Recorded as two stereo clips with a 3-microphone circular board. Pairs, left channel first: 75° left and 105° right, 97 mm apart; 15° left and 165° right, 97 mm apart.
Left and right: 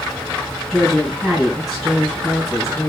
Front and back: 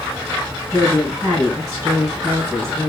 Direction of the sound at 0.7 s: 165° left.